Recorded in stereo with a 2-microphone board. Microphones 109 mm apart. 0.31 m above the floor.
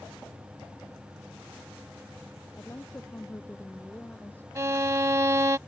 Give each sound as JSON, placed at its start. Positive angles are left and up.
{"t": 2.5, "sound": "a woman speaking", "side_deg": 20}
{"t": 4.5, "sound": "a violin", "side_deg": -30}